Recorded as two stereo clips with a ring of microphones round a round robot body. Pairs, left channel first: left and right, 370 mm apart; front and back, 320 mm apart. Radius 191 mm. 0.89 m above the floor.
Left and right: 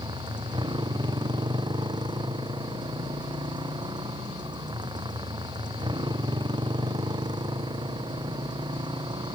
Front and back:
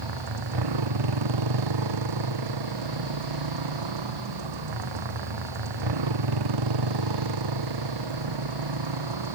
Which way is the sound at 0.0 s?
170° right.